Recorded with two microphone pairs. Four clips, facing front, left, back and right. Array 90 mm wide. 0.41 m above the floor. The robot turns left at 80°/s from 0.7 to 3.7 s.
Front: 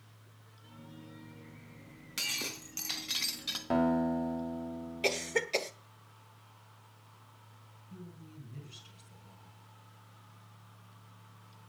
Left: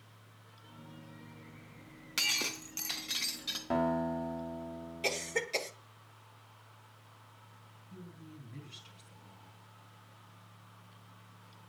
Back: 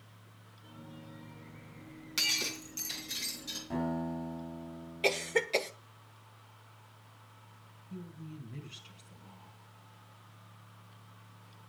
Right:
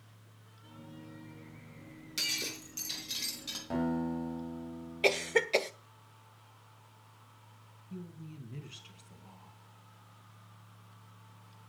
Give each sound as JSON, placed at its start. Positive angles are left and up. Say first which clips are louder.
{"t": 2.2, "sound": "breaking glass", "louder": "left 4 dB, back 3 dB", "azimuth_deg": 110, "distance_m": 2.5}
{"t": 3.7, "sound": "a guitar", "louder": "left 2 dB, front 6 dB", "azimuth_deg": 20, "distance_m": 3.0}
{"t": 5.0, "sound": "a cough", "louder": "right 7 dB, back 2 dB", "azimuth_deg": -100, "distance_m": 1.0}
{"t": 7.9, "sound": "a woman speaking", "louder": "right 5 dB, back 5 dB", "azimuth_deg": -115, "distance_m": 3.5}